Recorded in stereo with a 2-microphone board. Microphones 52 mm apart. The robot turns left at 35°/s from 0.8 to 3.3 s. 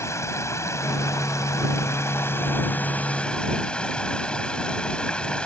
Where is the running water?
105° left; by 5.5 s 20° left.